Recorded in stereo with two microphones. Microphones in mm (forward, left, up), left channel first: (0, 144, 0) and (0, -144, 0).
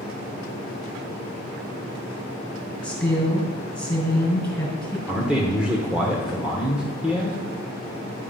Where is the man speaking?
5° right (ahead or behind), 1.0 m.